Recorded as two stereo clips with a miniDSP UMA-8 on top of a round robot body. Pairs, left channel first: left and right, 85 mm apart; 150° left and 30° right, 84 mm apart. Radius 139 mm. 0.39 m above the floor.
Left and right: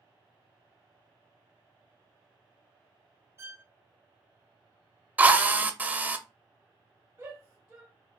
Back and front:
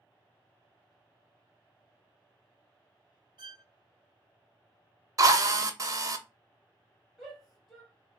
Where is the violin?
35° right, 0.7 m.